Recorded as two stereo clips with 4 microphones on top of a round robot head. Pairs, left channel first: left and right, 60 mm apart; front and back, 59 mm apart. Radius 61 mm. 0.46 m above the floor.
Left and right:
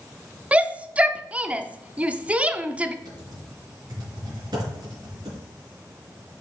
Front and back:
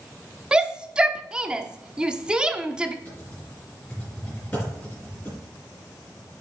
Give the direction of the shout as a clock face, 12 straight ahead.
4 o'clock.